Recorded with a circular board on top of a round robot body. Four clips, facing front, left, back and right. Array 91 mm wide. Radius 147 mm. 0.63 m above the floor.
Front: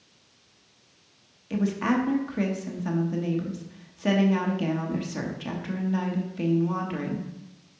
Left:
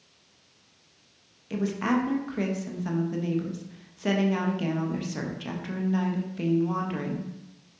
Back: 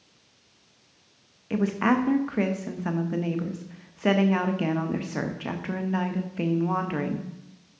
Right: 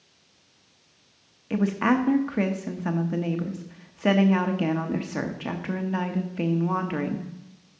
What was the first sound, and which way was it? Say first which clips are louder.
A woman speaking: right 4 dB, back 2 dB; 130° right.